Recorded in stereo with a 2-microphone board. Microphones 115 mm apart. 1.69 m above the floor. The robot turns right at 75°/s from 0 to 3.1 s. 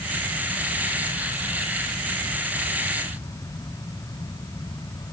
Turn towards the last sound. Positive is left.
No sound to turn to.